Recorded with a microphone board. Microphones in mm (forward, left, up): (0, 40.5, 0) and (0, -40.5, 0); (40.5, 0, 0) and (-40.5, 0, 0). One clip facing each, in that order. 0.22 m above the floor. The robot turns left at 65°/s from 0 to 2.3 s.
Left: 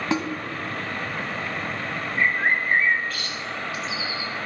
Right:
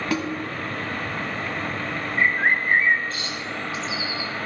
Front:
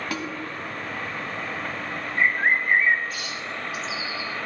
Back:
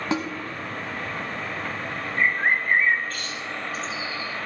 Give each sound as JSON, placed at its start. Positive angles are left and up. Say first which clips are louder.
{"t": 0.1, "sound": "a snare drum", "louder": "left 1 dB, back 7 dB", "azimuth_deg": 135, "distance_m": 1.1}
{"t": 2.2, "sound": "a bird", "louder": "right 1 dB, front 1 dB", "azimuth_deg": -55, "distance_m": 1.0}